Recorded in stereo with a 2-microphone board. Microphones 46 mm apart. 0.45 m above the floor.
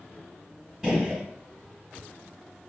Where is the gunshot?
15° right (ahead or behind), 2.0 m.